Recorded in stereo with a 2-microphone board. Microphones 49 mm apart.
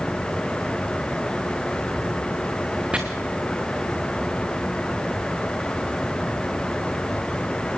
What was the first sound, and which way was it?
Chopping, 25° right (ahead or behind).